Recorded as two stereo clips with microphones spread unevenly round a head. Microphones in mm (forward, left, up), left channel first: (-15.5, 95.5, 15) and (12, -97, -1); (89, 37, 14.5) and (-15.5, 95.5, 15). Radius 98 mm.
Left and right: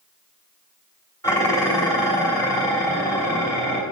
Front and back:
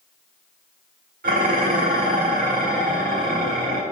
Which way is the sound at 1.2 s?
175° left.